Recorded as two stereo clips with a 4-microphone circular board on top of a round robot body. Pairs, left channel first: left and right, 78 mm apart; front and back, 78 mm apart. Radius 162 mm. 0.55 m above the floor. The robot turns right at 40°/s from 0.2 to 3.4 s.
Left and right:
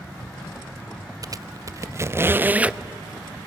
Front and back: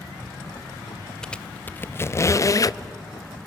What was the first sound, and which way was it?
A squeak, 80° right.